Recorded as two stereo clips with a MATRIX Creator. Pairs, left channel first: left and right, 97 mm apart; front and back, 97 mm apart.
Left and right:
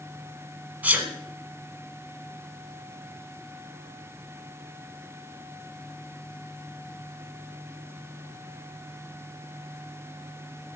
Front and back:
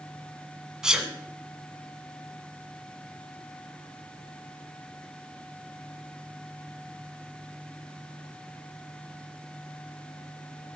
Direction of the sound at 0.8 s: 115° right.